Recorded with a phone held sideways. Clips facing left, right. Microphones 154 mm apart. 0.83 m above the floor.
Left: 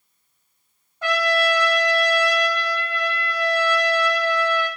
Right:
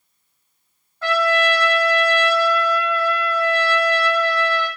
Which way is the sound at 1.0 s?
15° left (ahead or behind).